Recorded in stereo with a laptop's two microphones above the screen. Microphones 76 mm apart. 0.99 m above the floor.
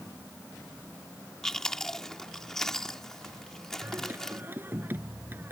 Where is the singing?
25° right (ahead or behind).